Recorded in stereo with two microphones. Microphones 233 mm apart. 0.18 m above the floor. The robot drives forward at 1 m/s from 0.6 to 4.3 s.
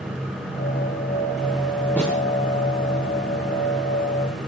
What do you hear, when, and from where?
2.0 s a snare drum: 5° left (ahead or behind), 7 m